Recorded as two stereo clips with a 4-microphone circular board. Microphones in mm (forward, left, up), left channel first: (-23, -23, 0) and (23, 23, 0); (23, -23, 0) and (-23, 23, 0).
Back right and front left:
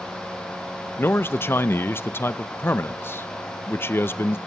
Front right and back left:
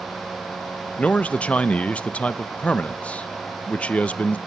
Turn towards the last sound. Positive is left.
turn(degrees=-105)